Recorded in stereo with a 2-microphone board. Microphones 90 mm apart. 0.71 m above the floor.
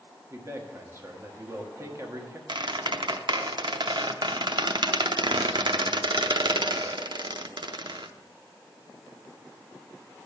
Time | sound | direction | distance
0.3 | a man speaking | 30° right (ahead or behind) | 1.3 m
2.5 | a squeak | 60° right (ahead or behind) | 0.6 m